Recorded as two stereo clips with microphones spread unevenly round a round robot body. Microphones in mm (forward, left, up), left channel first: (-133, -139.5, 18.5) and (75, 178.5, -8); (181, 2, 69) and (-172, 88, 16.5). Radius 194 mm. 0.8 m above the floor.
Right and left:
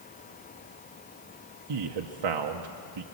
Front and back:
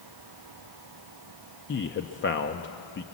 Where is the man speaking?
50° left, 1.0 m.